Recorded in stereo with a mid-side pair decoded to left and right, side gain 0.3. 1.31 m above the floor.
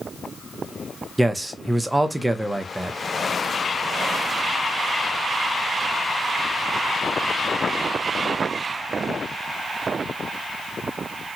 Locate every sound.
1.2 s a man speaking: 15° right, 0.8 m